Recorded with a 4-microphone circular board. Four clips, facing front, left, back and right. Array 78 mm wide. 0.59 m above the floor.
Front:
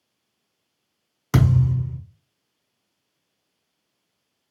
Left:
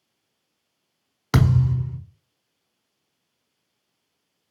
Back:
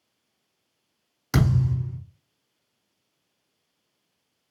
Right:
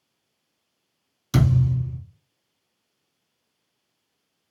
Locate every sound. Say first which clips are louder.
1.3 s a thud: left 1 dB, front 3 dB; 75° left, 1.3 m